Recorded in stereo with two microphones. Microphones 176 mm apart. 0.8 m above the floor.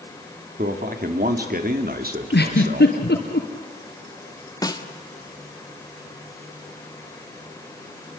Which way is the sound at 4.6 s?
20° left (ahead or behind).